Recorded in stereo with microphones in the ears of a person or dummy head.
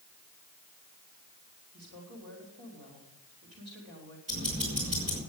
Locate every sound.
1.7 s a woman speaking: 65° right (ahead or behind), 3.5 m
4.3 s ticking: 40° right (ahead or behind), 6 m